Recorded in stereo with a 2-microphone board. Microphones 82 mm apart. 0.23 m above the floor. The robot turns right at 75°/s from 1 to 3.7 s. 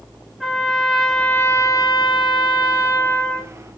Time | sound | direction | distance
0.4 | a trumpet | 5° right | 1.1 m